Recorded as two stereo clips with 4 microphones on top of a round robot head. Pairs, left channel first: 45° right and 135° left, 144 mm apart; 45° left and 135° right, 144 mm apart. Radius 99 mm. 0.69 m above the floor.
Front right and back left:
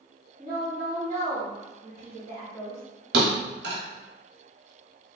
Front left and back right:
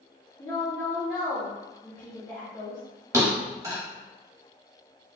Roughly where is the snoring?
No snoring in this recording.